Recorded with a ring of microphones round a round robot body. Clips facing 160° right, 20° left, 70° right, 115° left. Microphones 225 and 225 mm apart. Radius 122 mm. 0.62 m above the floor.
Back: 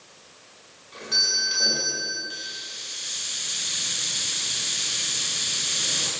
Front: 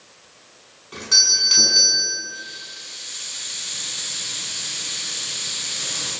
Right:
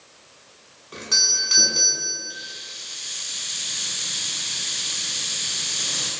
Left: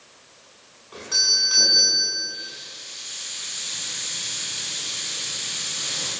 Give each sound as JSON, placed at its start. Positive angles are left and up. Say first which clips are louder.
{"t": 0.9, "sound": "a doorbell", "louder": "front 2 dB, right 1 dB", "azimuth_deg": -5, "distance_m": 7.5}
{"t": 2.3, "sound": "a hiss", "louder": "even, left 1 dB", "azimuth_deg": -110, "distance_m": 9.0}